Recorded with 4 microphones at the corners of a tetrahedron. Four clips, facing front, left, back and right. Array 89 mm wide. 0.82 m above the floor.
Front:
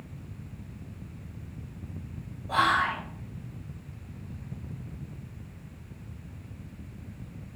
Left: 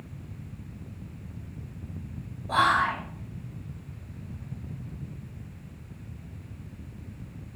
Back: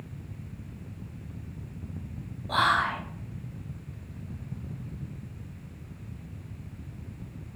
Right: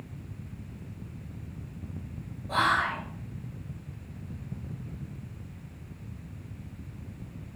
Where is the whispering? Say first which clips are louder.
Left 3 dB, even; 120° left, 0.6 m.